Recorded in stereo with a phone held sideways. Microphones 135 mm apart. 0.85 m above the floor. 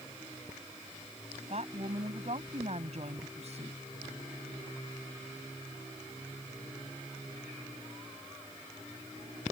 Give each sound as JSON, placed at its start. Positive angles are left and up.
{"t": 1.5, "sound": "a woman speaking", "side_deg": -55}